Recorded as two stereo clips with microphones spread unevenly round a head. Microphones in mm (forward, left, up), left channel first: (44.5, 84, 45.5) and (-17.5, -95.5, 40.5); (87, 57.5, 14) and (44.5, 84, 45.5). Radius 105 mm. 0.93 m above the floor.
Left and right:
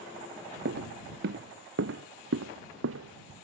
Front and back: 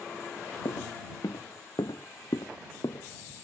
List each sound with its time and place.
0.7 s footsteps: 70° right; by 3.3 s 90° right